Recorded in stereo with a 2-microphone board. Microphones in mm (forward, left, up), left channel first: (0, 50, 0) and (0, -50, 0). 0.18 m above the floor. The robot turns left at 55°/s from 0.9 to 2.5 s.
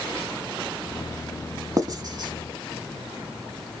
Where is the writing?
35° right (ahead or behind), 0.7 m; by 2.3 s 45° right (ahead or behind), 0.7 m.